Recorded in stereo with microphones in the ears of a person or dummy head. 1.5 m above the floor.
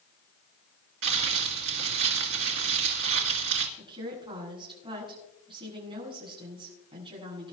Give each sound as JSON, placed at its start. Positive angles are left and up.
{"t": 1.0, "sound": "crumpling", "side_deg": -65, "distance_m": 2.0}
{"t": 3.8, "sound": "a woman speaking", "side_deg": -25, "distance_m": 7.5}